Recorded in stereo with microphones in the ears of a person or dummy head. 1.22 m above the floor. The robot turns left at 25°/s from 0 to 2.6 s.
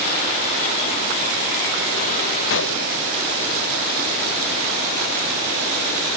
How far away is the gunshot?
About 0.9 m.